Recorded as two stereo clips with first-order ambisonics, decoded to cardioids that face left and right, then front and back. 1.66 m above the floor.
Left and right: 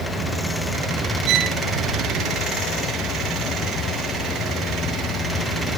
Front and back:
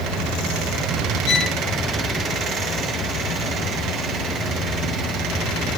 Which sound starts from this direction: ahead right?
A violin, at 1.3 s.